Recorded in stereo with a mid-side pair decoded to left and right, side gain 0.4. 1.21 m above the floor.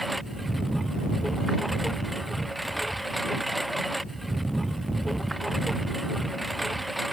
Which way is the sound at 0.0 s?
10° right.